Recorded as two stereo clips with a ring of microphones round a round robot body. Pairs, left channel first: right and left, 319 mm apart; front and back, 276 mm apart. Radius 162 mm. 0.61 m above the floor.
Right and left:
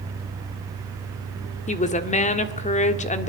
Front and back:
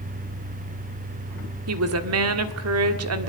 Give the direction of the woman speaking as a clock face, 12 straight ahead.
5 o'clock.